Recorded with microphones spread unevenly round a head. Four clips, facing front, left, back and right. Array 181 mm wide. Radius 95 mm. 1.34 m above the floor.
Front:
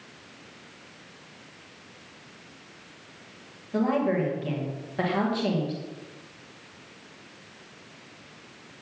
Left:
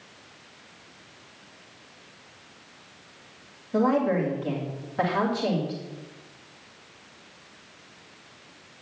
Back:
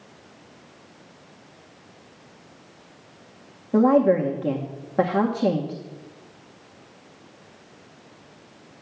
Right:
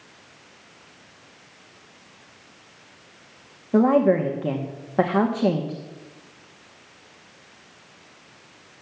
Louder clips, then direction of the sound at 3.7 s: Right 5 dB, back 8 dB; 130° right.